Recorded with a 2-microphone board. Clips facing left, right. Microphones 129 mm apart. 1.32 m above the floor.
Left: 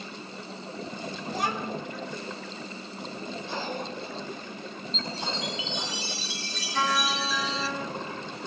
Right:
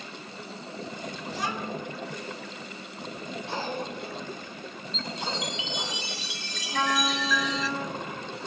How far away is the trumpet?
About 1.5 m.